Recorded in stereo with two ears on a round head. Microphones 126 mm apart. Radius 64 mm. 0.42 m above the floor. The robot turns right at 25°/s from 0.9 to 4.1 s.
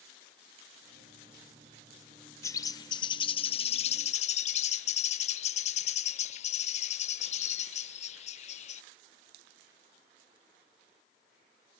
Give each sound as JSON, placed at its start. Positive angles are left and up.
{"t": 2.4, "sound": "a bird", "azimuth_deg": 25, "distance_m": 0.6}